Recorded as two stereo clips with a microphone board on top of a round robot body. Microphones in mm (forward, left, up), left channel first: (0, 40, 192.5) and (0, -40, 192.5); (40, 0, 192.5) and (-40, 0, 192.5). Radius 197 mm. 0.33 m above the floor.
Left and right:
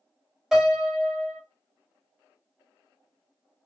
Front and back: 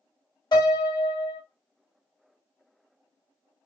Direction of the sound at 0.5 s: 5° right.